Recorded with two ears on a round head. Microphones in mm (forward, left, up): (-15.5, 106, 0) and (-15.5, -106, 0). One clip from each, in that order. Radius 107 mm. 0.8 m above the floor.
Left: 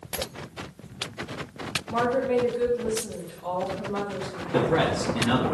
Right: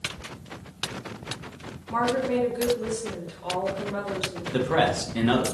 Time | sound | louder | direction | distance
1.9 | a woman speaking | even | 25° right (ahead or behind) | 1.5 m
4.5 | a man speaking | even | 25° right (ahead or behind) | 0.8 m